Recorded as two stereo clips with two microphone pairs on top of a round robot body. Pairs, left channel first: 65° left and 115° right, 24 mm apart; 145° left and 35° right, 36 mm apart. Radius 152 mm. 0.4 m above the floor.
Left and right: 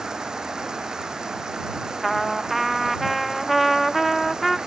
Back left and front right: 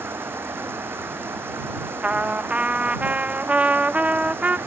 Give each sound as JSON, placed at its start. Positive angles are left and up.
{"t": 0.0, "sound": "running water", "azimuth_deg": -50}
{"t": 2.0, "sound": "a trumpet", "azimuth_deg": -45}